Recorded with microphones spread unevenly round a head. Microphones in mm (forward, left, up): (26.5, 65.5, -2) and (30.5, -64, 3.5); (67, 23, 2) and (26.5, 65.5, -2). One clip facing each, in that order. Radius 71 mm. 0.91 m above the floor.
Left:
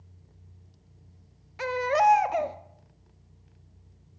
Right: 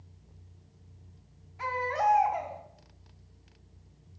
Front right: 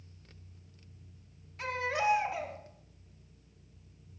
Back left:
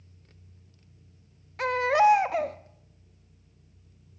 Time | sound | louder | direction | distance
1.6 | a baby crying | left 6 dB, back left 10 dB | 115° left | 0.7 m